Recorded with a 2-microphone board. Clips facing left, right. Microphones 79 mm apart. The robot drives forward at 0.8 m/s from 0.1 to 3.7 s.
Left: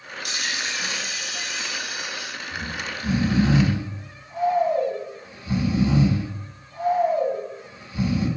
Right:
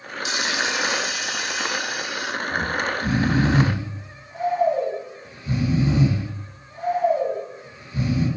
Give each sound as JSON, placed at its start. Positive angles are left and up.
{"t": 0.2, "sound": "a dropped coin", "side_deg": 55, "distance_m": 1.8}
{"t": 2.5, "sound": "snoring", "side_deg": -45, "distance_m": 3.5}